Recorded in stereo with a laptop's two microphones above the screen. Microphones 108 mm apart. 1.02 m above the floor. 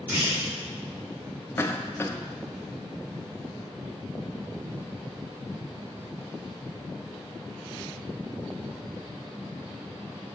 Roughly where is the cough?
Left.